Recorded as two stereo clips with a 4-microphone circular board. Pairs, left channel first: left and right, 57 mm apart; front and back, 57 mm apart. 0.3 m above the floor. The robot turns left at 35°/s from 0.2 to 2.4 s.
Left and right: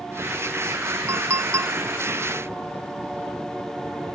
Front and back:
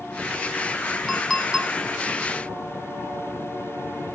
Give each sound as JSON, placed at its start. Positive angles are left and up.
{"t": 1.1, "sound": "a clink", "azimuth_deg": -85, "distance_m": 1.2}